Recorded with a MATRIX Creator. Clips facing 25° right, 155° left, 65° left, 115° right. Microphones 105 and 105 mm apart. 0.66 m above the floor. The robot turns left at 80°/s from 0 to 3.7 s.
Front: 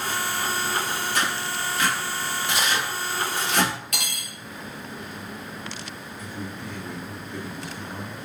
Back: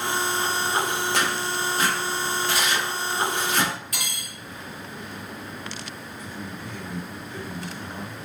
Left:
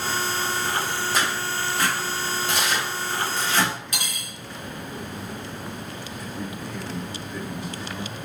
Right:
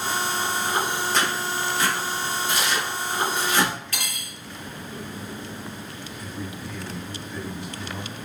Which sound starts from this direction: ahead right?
A man speaking, at 6.2 s.